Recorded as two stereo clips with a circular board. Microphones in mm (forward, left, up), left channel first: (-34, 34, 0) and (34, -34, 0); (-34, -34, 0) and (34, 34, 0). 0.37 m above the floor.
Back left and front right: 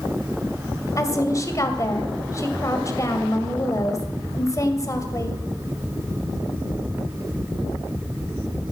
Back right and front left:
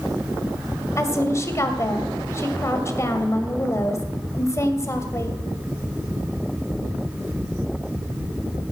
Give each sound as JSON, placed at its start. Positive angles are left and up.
{"t": 1.0, "sound": "a woman speaking", "azimuth_deg": 175, "distance_m": 1.9}